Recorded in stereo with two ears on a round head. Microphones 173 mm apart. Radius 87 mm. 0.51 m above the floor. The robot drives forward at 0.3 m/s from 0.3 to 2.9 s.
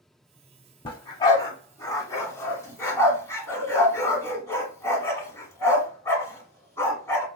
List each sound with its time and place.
0.8 s a dog barking: 25° left (ahead or behind), 0.7 m; by 7.2 s 15° left (ahead or behind), 1.3 m